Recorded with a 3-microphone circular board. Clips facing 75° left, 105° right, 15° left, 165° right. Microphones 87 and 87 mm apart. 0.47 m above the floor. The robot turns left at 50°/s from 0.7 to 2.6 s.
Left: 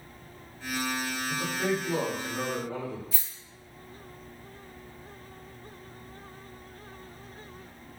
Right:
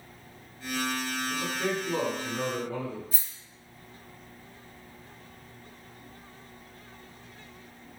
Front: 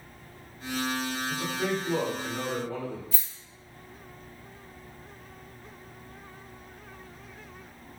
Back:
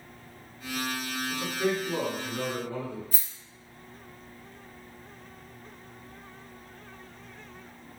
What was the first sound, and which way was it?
A man speaking, 65° left.